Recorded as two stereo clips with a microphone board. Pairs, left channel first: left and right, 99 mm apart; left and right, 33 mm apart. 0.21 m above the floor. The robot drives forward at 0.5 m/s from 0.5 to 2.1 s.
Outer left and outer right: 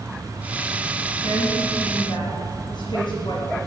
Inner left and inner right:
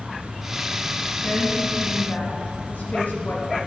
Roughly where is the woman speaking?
Left.